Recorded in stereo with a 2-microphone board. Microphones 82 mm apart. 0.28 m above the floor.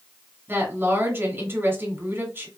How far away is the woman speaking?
About 1.1 m.